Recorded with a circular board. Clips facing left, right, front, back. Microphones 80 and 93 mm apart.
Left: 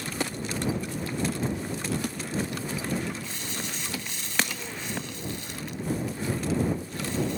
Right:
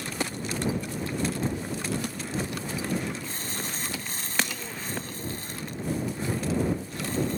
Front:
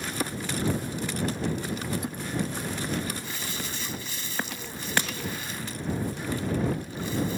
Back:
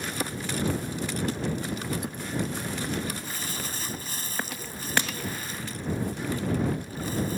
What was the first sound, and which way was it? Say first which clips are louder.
Crumpling: right 1 dB, even; 135° right.